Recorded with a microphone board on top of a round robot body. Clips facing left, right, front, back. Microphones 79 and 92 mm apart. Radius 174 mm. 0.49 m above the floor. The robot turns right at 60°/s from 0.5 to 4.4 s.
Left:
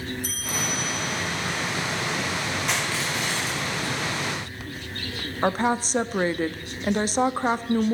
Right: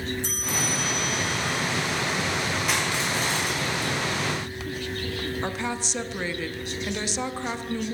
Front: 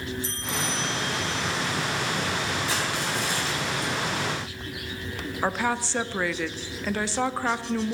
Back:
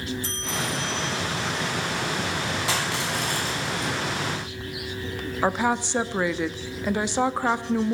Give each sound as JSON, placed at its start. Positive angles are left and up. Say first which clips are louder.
{"t": 0.2, "sound": "a bell", "louder": "right 1 dB, back 1 dB", "azimuth_deg": -155, "distance_m": 2.0}
{"t": 2.7, "sound": "crushing", "louder": "right 1 dB, back 1 dB", "azimuth_deg": 180, "distance_m": 4.5}
{"t": 5.4, "sound": "a woman speaking", "louder": "left 7 dB, back 3 dB", "azimuth_deg": 115, "distance_m": 0.9}